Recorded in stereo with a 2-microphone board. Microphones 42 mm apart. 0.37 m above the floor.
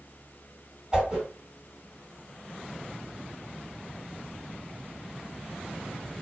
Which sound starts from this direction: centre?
A whoosh, at 0.9 s.